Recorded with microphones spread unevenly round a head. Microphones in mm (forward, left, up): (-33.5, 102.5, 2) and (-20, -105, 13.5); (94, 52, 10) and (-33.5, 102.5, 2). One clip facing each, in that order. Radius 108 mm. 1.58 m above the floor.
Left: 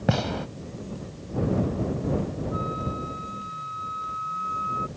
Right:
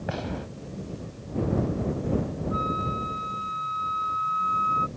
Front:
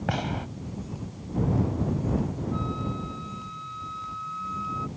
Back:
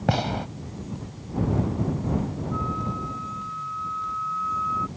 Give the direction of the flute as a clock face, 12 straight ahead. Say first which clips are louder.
Even, back 1 dB; 3 o'clock.